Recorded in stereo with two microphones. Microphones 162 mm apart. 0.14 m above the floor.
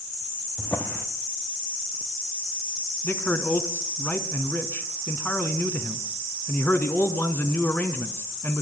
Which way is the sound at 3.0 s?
10° left (ahead or behind).